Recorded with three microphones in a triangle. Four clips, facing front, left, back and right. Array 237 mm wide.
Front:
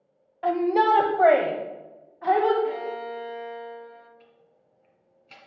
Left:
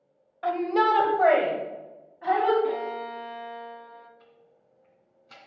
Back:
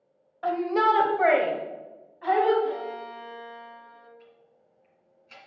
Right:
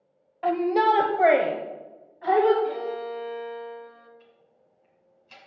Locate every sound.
0.4 s a shout: 55° right, 0.9 m; by 2.5 s straight ahead, 1.7 m
2.6 s a violin: 100° left, 0.9 m
4.2 s ticking: 45° left, 2.5 m